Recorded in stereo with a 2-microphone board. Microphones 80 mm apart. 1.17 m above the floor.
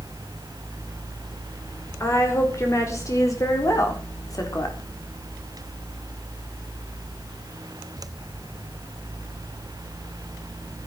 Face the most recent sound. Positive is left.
turn(degrees=50)  # may be behind; listen again after turning